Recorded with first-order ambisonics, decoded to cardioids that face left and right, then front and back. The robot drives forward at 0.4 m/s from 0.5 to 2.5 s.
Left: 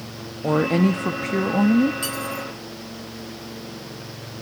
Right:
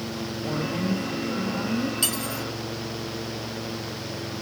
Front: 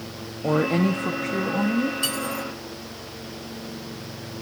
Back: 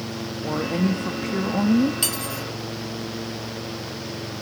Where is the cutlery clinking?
155° right, 3.5 m.